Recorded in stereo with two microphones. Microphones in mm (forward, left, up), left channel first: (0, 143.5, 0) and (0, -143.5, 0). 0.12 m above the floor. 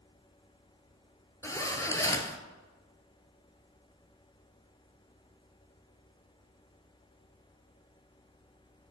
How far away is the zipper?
About 0.6 m.